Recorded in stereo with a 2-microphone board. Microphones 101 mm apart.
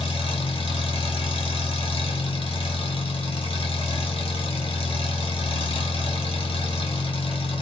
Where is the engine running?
70° left (ahead or behind), 1.6 m.